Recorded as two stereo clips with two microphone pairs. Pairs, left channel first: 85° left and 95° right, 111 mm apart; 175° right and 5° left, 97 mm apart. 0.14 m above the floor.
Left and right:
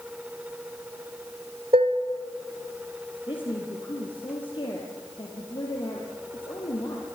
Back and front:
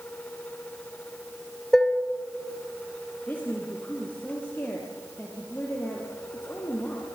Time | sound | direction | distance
1.7 | dishes clattering | 85° right | 1.8 m
3.3 | a woman speaking | 120° left | 4 m